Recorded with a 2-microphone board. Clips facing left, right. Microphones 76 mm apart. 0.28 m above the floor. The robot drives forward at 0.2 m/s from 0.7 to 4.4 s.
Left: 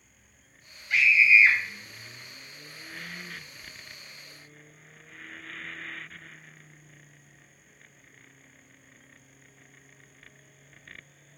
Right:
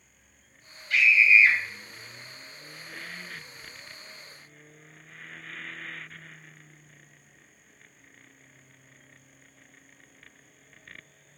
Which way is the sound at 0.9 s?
20° left (ahead or behind).